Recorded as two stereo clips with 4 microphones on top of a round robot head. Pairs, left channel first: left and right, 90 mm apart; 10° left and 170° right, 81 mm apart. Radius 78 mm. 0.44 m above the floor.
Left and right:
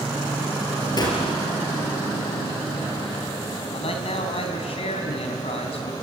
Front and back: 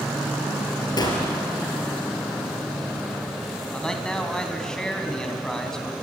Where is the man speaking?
95° left, 4 m.